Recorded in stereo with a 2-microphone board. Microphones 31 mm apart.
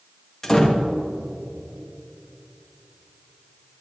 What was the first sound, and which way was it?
A door slam, 20° left (ahead or behind).